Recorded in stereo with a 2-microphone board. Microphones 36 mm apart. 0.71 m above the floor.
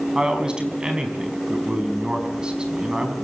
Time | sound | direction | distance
0.1 | a man speaking | 25° right (ahead or behind) | 5.5 m